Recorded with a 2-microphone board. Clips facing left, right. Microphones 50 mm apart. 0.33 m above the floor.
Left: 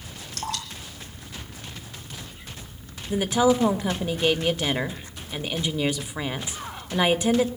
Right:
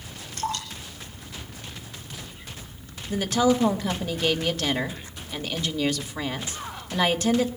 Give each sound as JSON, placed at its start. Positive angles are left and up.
{"t": 0.3, "sound": "dripping", "side_deg": 80, "distance_m": 8.5}
{"t": 3.1, "sound": "a woman speaking", "side_deg": 20, "distance_m": 0.9}